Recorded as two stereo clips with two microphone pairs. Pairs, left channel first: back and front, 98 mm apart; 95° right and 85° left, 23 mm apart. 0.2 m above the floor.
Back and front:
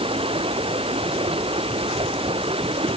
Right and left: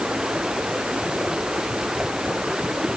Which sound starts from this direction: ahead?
Running water, at 0.0 s.